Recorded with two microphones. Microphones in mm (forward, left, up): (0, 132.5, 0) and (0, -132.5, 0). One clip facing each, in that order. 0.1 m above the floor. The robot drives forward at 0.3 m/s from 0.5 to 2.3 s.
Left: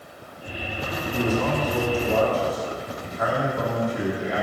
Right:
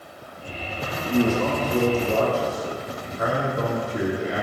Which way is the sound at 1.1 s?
30° right (ahead or behind).